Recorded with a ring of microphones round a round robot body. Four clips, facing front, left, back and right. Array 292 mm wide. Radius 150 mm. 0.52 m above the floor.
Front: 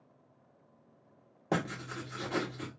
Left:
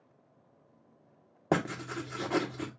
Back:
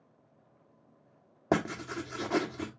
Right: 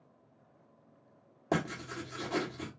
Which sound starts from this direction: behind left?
Writing, at 1.5 s.